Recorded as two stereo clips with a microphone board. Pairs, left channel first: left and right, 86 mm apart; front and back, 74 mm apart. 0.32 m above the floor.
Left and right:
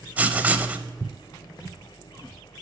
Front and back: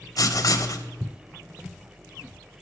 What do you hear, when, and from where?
0.2 s writing: 20° right, 0.6 m